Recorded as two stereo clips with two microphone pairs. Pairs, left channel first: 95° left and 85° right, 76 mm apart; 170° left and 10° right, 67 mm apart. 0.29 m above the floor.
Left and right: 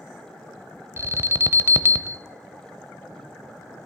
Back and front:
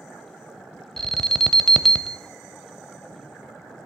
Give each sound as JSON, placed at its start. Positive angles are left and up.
{"t": 1.0, "sound": "an alarm", "azimuth_deg": -110, "distance_m": 0.6}